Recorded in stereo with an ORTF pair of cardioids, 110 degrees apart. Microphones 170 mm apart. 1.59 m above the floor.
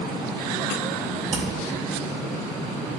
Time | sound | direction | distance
1.3 | hammering | 50° right | 5.5 m